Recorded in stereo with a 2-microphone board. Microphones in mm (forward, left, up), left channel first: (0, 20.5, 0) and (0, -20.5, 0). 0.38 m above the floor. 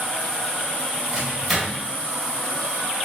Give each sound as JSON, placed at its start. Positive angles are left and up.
{"t": 1.1, "sound": "a microwave", "side_deg": -5, "distance_m": 1.0}